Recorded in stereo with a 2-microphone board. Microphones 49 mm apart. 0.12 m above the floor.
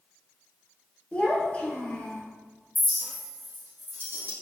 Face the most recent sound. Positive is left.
turn(degrees=-55)  # may be behind; listen again after turning